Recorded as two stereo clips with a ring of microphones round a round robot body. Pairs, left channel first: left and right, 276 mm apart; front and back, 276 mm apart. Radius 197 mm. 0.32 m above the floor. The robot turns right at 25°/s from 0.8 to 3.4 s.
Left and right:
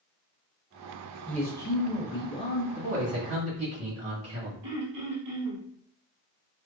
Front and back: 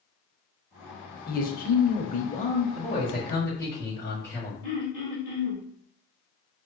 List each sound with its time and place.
1.3 s a man speaking: 10° left, 0.9 m; by 2.6 s 45° left, 0.9 m
2.8 s a man speaking: 95° right, 2 m; by 4.5 s 80° right, 2 m
4.6 s throat clearing: 65° right, 1.8 m